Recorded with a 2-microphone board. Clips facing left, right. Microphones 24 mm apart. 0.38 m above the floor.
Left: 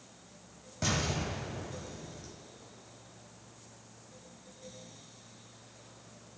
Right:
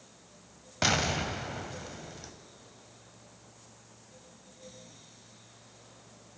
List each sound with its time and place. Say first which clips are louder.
0.8 s an explosion: right 5 dB; 60° right (ahead or behind), 0.7 m